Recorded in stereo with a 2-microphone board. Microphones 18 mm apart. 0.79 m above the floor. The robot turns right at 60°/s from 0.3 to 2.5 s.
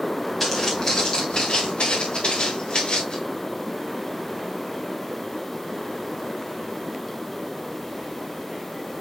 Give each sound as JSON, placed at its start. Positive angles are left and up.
{"t": 0.4, "sound": "footsteps", "side_deg": 5, "distance_m": 4.0}